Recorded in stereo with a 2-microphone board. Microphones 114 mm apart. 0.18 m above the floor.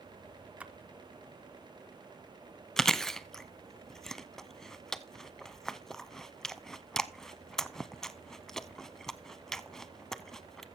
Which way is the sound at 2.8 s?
5° left (ahead or behind).